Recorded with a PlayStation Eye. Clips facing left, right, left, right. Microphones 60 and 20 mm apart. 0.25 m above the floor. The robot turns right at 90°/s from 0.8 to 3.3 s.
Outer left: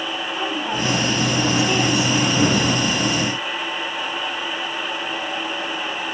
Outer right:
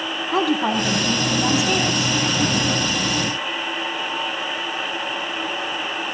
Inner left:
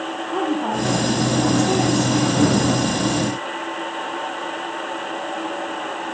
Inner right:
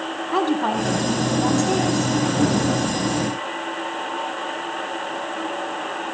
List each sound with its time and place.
0.3 s a woman speaking: 90° right, 8 m; by 2.2 s 30° left, 8 m